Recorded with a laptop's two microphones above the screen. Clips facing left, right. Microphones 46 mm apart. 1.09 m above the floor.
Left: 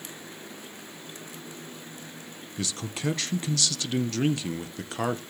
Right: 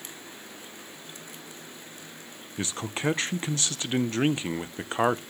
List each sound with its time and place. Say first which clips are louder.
2.6 s a man speaking: right 2 dB; 30° right (ahead or behind), 0.7 m